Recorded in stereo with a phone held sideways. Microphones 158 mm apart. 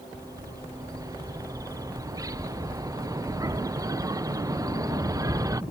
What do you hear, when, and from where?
0.1 s a bird: 20° right (ahead or behind)